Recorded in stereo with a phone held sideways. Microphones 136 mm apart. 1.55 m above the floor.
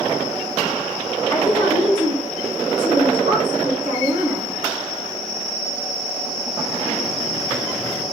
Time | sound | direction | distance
1.3 | a woman speaking | 25° left (ahead or behind) | 0.7 m